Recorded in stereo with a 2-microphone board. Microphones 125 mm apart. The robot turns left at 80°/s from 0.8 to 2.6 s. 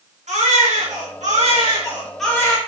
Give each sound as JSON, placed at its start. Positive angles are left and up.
{"t": 0.3, "sound": "a baby crying", "azimuth_deg": -70, "distance_m": 5.0}